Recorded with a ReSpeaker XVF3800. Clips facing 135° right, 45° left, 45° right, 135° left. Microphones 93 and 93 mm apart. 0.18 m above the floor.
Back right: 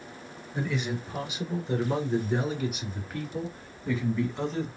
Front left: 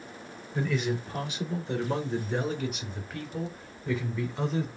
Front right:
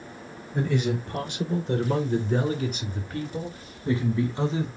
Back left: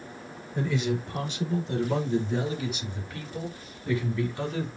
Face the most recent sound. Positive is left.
turn(degrees=-35)